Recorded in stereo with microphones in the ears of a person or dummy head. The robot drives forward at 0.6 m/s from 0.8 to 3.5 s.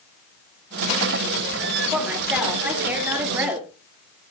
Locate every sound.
1.9 s a woman speaking: 5° right (ahead or behind), 3.5 m; by 3.7 s 10° right (ahead or behind), 2.5 m